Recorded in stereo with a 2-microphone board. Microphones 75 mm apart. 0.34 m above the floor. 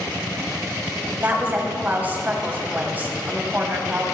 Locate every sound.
1.2 s a woman speaking: 25° right (ahead or behind), 2 m